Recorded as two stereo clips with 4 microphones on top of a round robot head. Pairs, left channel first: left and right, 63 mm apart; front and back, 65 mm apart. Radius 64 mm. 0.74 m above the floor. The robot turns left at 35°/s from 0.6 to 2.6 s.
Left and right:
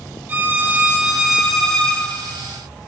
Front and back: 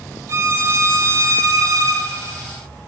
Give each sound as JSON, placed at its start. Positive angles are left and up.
{"t": 0.3, "sound": "a violin", "azimuth_deg": -145, "distance_m": 0.8}